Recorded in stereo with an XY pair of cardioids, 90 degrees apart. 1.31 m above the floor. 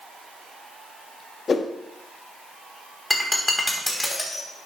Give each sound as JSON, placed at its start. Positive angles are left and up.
{"t": 1.5, "sound": "a whoosh", "azimuth_deg": 50, "distance_m": 1.2}
{"t": 3.1, "sound": "breaking glass", "azimuth_deg": 15, "distance_m": 3.0}